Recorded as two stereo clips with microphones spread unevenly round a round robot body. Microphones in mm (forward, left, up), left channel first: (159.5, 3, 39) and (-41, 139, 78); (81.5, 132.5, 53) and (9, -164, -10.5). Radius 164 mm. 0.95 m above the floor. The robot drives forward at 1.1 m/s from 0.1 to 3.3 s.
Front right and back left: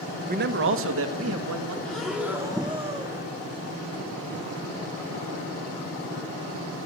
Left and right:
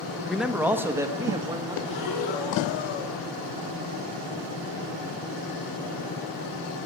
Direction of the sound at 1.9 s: 50° left.